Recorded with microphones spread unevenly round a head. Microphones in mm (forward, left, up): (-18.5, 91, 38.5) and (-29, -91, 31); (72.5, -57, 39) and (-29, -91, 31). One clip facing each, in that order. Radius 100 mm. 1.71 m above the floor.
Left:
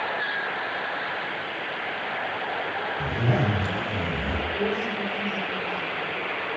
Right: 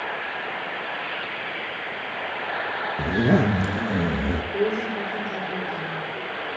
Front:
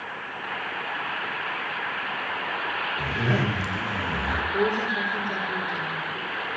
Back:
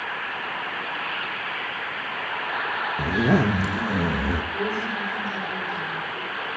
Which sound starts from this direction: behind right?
A zipper, at 3.0 s.